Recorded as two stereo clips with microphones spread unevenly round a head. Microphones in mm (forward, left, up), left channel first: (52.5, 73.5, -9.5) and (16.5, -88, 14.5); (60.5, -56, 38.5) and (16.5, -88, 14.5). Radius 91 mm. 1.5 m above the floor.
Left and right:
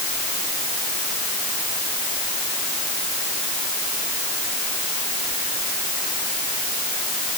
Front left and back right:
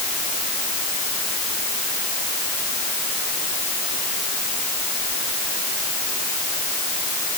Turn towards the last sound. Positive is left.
No sound to turn to.